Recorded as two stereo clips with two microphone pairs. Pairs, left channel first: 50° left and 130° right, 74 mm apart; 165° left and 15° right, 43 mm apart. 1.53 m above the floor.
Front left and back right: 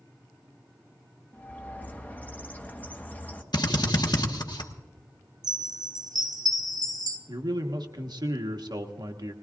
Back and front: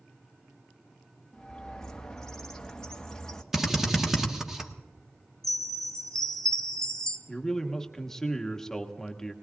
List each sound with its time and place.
1.3 s a bird: 100° left, 1.1 m
3.5 s a drill: 65° left, 1.4 m
5.4 s a chime: 120° right, 1.0 m
7.3 s a man speaking: 120° right, 1.2 m